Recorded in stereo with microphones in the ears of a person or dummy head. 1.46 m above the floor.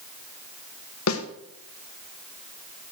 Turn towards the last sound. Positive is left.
turn(degrees=80)